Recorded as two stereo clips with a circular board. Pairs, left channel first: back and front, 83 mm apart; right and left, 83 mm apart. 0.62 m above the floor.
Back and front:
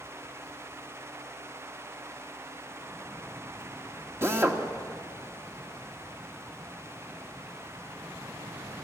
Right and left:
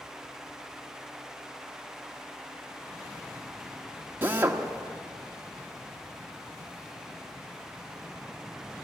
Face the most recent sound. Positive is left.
turn(degrees=40)